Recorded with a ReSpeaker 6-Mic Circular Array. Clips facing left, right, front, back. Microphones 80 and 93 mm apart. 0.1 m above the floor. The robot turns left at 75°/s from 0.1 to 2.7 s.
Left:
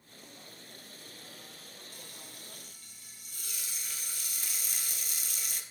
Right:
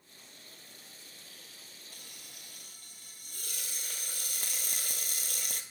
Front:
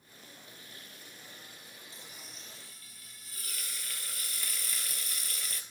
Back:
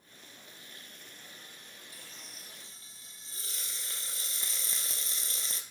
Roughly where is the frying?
Ahead right.